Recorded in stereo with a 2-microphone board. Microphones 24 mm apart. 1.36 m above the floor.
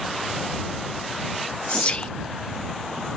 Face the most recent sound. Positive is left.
turn(degrees=45)  # may be behind; listen again after turning